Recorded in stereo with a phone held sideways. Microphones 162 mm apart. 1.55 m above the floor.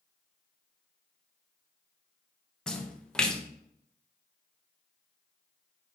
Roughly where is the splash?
Centre.